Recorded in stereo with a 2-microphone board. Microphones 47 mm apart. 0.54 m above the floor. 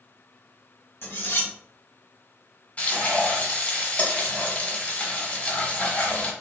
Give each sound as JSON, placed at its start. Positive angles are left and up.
{"t": 1.0, "sound": "cutlery clinking", "side_deg": 60, "distance_m": 1.7}
{"t": 2.8, "sound": "frying", "side_deg": 35, "distance_m": 1.3}